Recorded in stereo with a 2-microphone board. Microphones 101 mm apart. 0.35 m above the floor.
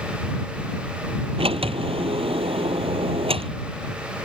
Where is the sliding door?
85° right.